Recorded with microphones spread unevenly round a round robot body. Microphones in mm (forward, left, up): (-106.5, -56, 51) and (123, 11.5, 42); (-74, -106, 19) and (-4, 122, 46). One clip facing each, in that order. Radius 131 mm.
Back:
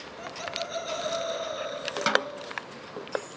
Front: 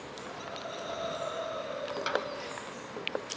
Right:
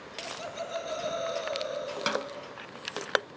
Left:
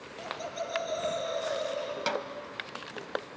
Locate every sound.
0.2 s laughter: 170° left, 7 m; by 2.4 s 175° right, 5.5 m
2.1 s a snare drum: straight behind, 1.3 m